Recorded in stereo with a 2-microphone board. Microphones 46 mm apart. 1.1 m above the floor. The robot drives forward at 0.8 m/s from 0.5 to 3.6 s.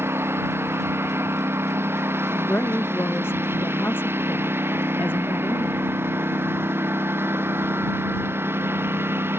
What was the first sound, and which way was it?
A lawn mower, 70° right (ahead or behind).